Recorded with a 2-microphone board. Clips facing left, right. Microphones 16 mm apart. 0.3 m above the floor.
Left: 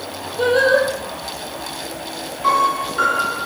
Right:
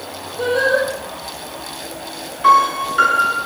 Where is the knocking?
I don't hear knocking.